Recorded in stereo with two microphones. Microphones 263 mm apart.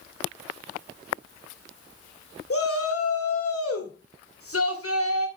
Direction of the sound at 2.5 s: 55° left (ahead or behind).